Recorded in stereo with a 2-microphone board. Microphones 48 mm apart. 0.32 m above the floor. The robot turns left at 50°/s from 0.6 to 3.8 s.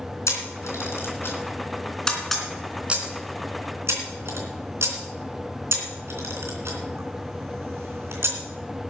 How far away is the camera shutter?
About 3 m.